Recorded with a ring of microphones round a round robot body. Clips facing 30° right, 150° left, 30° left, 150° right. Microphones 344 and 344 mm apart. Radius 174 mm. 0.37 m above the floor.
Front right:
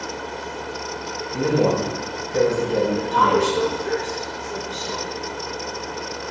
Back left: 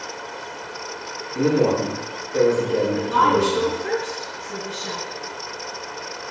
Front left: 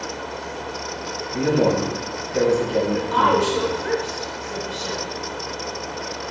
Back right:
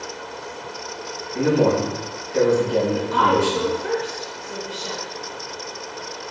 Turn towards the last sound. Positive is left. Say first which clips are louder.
# even, even
turn(degrees=70)